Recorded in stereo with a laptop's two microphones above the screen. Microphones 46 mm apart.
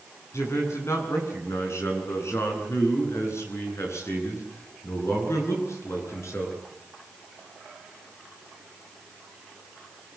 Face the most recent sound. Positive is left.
turn(degrees=80)